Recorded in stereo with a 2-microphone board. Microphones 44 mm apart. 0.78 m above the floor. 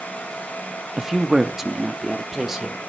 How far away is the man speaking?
About 0.6 m.